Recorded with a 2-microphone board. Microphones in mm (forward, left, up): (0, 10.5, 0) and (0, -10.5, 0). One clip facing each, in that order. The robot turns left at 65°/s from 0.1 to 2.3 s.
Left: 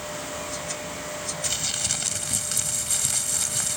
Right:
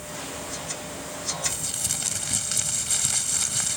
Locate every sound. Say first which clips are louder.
1.4 s crumpling: left 5 dB; 45° left; by 3.8 s 10° right